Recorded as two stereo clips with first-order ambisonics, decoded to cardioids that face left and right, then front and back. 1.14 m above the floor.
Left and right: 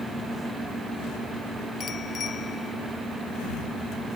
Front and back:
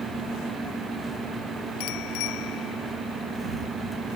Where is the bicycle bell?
25° left.